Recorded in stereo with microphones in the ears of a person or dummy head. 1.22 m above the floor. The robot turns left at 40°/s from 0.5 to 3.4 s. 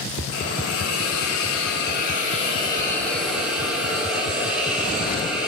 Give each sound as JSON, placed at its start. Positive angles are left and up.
{"t": 0.3, "sound": "a hiss", "azimuth_deg": 110, "distance_m": 0.8}